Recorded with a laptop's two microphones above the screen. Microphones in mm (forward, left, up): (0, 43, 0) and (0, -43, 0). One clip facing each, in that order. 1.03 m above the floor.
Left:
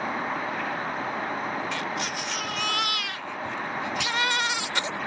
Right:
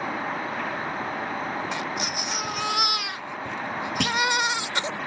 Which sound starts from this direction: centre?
A baby crying, at 1.7 s.